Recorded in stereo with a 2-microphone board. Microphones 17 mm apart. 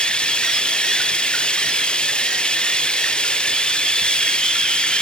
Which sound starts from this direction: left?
Running water, at 0.0 s.